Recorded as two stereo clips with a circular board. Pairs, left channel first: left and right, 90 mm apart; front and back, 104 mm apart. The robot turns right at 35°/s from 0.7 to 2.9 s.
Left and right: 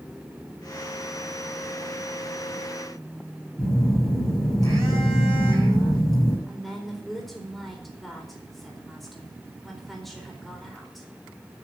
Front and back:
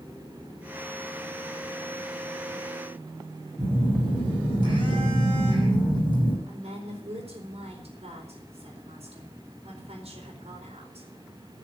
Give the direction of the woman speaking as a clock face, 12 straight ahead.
6 o'clock.